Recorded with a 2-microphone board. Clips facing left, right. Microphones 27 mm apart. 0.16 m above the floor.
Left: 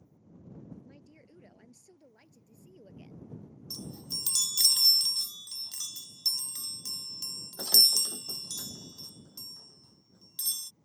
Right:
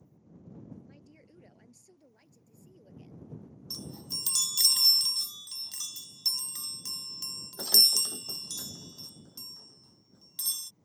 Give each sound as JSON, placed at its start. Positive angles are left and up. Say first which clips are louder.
{"t": 0.8, "sound": "a woman speaking", "louder": "even", "side_deg": 0}
{"t": 3.7, "sound": "a chime", "louder": "even", "side_deg": -20}